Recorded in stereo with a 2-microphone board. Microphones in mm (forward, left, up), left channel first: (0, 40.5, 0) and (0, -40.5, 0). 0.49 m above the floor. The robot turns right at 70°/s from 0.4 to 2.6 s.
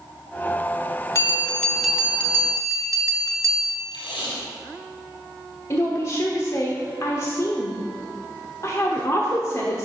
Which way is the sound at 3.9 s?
75° left (ahead or behind).